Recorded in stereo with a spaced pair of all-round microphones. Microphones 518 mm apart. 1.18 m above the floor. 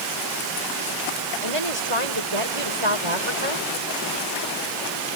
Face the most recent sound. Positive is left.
turn(degrees=-75)  # may be behind; listen again after turning